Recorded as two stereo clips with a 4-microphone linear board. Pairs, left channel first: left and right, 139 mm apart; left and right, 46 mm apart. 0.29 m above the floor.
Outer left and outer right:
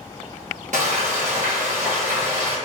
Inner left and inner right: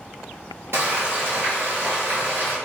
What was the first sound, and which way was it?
Frying, 65° right (ahead or behind).